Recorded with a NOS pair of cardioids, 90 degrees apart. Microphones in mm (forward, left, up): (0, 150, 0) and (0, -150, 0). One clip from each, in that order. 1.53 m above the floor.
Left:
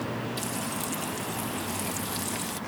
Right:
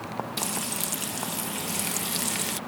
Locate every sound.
0.4 s frying: 45° right